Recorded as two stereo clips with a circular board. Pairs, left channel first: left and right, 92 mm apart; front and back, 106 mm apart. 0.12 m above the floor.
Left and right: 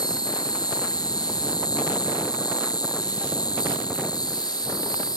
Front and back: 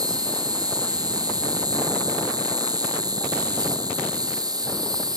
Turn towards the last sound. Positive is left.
turn(degrees=130)